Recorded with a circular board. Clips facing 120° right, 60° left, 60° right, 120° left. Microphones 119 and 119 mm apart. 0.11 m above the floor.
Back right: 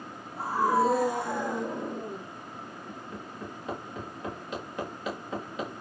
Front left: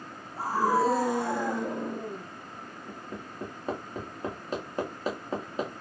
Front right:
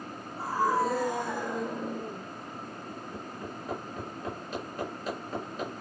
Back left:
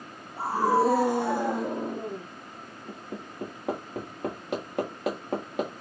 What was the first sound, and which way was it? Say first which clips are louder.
A scream: even, back left 4 dB; 110° left.